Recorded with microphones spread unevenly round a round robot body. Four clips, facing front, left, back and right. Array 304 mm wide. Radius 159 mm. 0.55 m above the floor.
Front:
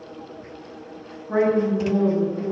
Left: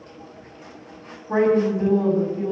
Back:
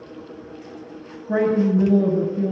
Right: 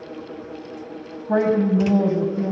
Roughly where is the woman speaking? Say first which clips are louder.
Even, back 1 dB; behind right.